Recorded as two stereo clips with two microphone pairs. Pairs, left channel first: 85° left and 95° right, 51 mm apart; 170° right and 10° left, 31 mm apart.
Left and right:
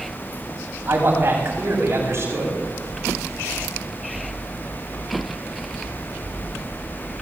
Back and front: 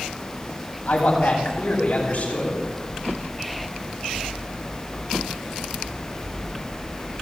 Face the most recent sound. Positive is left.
turn(degrees=-130)